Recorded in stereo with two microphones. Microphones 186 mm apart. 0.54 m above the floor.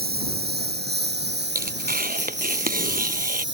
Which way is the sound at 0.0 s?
60° right (ahead or behind).